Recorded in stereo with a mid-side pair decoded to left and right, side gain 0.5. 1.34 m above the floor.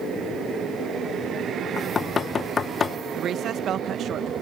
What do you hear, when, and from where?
1.8 s knocking: 35° left, 1.0 m
3.2 s a woman speaking: 60° right, 1.0 m